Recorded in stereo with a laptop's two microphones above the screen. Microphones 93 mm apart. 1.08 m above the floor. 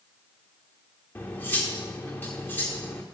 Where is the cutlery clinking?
20° left (ahead or behind), 1.4 m.